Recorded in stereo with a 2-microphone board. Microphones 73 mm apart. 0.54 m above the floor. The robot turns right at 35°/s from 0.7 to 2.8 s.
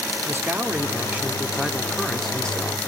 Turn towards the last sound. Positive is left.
turn(degrees=30)